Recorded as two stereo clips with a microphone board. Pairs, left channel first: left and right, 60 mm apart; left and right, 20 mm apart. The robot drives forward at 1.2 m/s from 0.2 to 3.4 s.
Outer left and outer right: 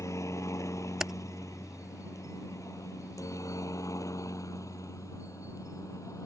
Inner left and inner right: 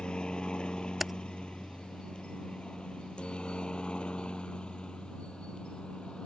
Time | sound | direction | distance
0.0 | a helicopter | 55° left (ahead or behind) | ?
1.0 | typing on a keyboard | 10° right (ahead or behind) | ?